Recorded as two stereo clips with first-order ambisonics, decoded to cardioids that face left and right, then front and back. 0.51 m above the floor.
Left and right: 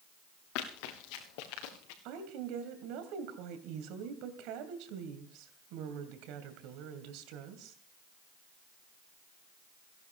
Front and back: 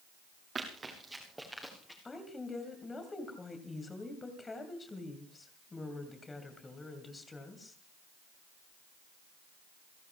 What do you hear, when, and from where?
0.6 s running footsteps: 110° left, 3.5 m; by 1.9 s 85° left, 4 m
2.0 s a woman speaking: 75° right, 2.5 m